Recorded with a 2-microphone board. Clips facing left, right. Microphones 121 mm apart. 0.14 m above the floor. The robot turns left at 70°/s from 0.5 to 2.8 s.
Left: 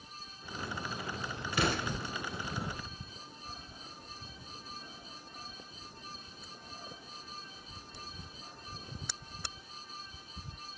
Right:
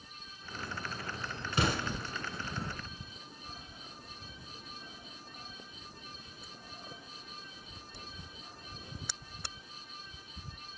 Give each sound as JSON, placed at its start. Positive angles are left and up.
{"t": 1.5, "sound": "an explosion", "side_deg": -25, "distance_m": 1.2}